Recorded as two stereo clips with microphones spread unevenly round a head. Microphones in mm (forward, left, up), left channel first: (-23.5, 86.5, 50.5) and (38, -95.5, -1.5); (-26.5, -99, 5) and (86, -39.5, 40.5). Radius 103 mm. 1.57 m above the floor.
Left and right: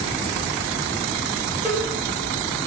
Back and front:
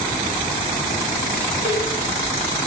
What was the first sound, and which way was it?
A cowbell, 20° left.